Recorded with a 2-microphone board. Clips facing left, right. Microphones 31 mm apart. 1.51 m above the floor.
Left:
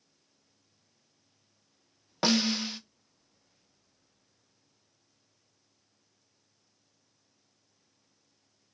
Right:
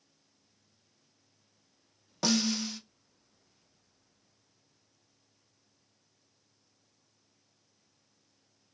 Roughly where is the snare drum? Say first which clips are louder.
Left 2 dB; left.